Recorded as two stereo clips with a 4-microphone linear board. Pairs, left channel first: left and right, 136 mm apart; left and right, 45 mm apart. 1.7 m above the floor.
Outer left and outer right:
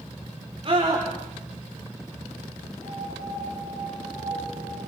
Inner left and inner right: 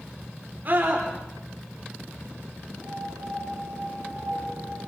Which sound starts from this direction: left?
A piano, at 2.8 s.